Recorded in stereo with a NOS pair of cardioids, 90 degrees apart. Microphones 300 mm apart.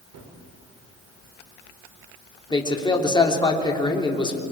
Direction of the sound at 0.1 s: 65° right.